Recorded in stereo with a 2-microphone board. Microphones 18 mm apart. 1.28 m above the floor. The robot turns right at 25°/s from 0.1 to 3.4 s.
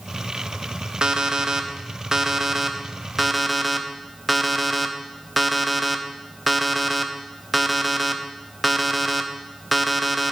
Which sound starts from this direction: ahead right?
An alarm clock, at 1.0 s.